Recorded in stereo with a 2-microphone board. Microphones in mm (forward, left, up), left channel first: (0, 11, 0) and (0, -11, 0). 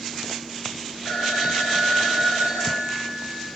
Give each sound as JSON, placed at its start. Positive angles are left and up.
{"t": 1.1, "sound": "a phone ringing", "side_deg": 45, "distance_m": 4.5}